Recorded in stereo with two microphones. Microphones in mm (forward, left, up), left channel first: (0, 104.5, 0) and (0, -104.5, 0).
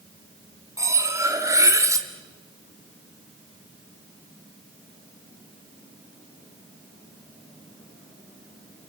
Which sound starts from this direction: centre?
Cutlery clinking, at 0.8 s.